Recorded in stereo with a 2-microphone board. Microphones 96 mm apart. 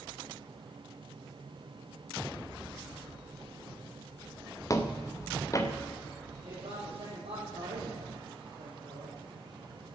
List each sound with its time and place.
4.7 s footsteps: 35° left (ahead or behind), 1.5 m
6.4 s a man speaking: 75° right (ahead or behind), 6 m